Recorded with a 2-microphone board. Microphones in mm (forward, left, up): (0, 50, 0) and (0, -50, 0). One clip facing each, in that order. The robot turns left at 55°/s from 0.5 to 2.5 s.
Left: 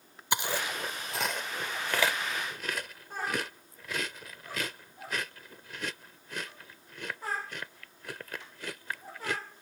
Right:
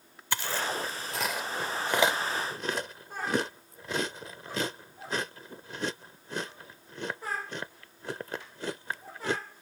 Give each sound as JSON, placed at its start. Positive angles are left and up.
{"t": 0.3, "sound": "chewing", "side_deg": 20}